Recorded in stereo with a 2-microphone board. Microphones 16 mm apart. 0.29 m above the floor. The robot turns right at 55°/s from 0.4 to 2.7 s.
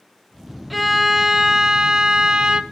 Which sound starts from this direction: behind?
A violin, at 0.7 s.